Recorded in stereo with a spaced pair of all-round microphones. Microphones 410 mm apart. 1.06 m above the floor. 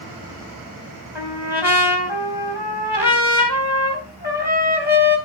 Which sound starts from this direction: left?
A trumpet, at 1.1 s.